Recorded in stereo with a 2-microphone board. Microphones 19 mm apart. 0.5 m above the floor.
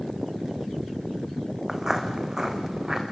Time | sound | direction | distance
1.7 | footsteps | 15° right (ahead or behind) | 2 m